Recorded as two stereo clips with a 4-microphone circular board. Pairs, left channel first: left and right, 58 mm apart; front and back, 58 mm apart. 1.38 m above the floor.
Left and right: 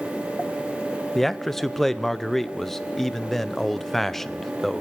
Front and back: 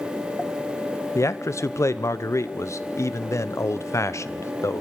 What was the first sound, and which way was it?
A man speaking, 5° left.